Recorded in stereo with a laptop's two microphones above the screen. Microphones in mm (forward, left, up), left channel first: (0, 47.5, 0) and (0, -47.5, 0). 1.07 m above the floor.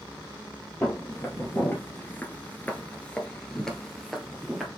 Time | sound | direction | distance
0.8 | footsteps | 25° left (ahead or behind) | 1.6 m